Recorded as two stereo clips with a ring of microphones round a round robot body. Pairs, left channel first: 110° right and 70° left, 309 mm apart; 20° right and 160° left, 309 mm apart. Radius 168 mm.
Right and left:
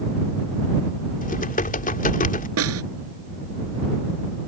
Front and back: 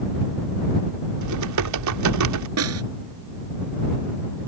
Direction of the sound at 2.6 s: 115° left.